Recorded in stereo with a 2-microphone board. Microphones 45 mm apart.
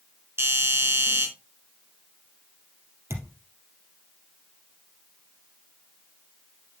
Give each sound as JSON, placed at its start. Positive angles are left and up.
{"t": 0.4, "sound": "a doorbell", "side_deg": -70, "distance_m": 4.0}
{"t": 3.1, "sound": "a thud", "side_deg": -85, "distance_m": 3.0}